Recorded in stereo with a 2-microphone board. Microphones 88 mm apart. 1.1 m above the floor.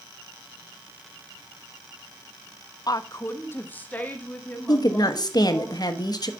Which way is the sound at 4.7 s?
50° left (ahead or behind).